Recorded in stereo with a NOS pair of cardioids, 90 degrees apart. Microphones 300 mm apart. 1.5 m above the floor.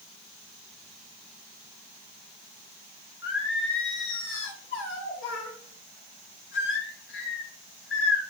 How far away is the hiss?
No hiss in this recording.